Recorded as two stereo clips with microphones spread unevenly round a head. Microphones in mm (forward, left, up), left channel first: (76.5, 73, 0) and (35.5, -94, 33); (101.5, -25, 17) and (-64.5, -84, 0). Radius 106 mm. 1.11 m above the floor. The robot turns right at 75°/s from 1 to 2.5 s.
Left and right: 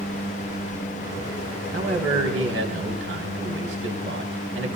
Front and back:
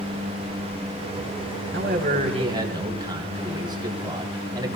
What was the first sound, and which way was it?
A man speaking, 155° right.